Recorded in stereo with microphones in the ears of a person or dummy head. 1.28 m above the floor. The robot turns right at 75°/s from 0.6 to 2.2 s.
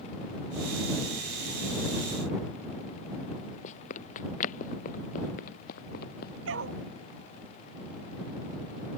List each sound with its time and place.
3.6 s running footsteps: 40° left (ahead or behind); by 6.3 s 55° left (ahead or behind)
6.5 s a dog barking: 75° right (ahead or behind)